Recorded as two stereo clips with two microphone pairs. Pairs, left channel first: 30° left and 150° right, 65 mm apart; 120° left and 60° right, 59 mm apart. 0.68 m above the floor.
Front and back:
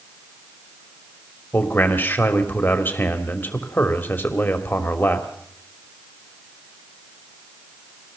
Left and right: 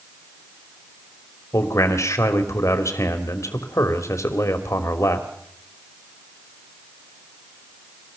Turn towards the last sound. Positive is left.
turn(degrees=90)